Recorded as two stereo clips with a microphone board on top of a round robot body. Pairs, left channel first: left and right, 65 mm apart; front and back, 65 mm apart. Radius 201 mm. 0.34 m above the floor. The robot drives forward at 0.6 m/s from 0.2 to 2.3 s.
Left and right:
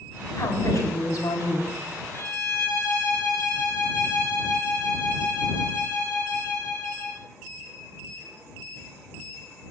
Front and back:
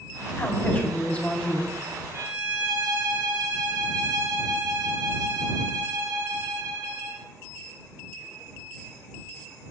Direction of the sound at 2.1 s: 140° left.